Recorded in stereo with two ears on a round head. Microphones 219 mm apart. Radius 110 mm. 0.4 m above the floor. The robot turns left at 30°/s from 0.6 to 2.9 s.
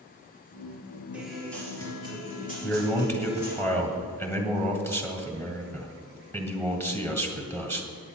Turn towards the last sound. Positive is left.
turn(degrees=10)  # may be behind; listen again after turning